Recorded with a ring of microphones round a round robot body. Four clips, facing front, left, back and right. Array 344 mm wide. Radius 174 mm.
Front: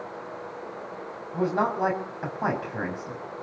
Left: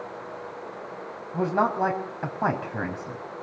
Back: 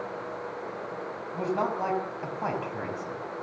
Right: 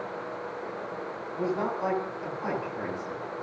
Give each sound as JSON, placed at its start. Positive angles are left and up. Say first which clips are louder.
{"t": 1.3, "sound": "a man speaking", "louder": "left 6 dB, front 4 dB", "azimuth_deg": 75, "distance_m": 5.5}